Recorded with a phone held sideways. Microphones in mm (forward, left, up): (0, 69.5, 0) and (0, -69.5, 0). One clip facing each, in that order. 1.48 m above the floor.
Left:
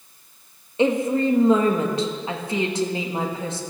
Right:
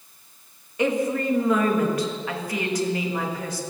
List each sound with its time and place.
0.8 s a woman speaking: 25° left (ahead or behind), 1.8 m